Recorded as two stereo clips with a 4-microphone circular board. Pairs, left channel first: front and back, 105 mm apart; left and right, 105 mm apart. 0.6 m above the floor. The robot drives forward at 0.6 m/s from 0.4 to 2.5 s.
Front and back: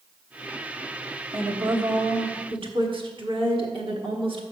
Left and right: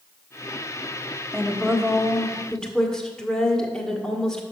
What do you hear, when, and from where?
1.3 s a woman speaking: 165° left, 0.9 m; by 4.4 s 175° left, 1.5 m